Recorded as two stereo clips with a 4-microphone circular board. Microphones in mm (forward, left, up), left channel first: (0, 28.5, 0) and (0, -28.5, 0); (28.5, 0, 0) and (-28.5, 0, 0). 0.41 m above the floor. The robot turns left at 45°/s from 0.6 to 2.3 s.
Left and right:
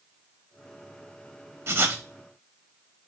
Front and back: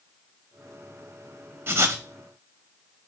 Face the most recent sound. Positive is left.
turn(degrees=-160)